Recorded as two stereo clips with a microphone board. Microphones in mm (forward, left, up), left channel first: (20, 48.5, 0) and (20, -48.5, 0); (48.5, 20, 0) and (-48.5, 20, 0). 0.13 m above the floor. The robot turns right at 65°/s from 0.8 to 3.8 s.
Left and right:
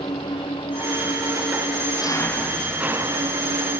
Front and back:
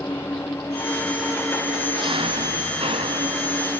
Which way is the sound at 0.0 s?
65° left.